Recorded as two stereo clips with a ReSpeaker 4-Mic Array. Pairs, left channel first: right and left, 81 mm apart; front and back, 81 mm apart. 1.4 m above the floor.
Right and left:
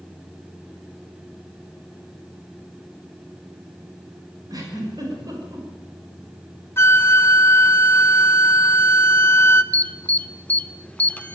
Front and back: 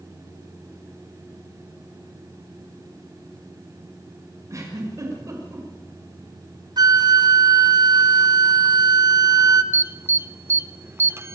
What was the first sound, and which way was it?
A giggle, 130° left.